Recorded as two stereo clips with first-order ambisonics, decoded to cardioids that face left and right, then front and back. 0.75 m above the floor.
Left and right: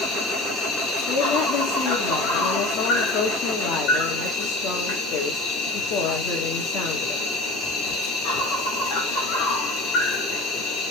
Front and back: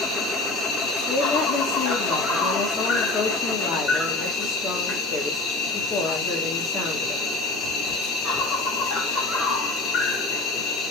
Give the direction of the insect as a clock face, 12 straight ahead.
10 o'clock.